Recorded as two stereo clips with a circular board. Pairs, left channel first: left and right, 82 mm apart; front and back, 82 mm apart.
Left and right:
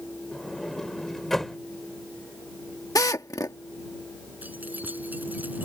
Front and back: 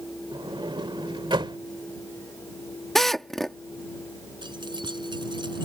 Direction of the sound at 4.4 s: 160° right.